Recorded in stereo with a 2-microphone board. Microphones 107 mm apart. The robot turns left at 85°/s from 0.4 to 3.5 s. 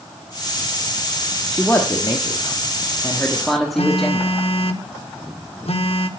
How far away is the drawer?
I don't hear a drawer.